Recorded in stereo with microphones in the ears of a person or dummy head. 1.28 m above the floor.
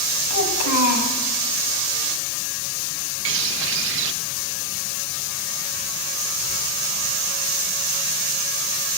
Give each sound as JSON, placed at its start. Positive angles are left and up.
{"t": 0.3, "sound": "a child speaking", "side_deg": 80, "distance_m": 4.5}
{"t": 3.2, "sound": "a bird", "side_deg": -65, "distance_m": 1.5}